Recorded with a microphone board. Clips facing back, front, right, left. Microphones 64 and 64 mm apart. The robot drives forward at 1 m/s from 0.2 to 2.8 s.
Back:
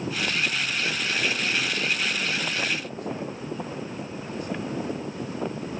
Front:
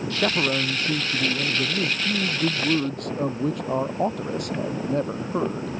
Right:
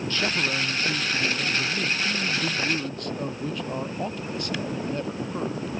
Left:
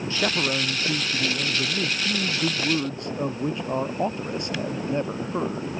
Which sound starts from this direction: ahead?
A man speaking, at 0.1 s.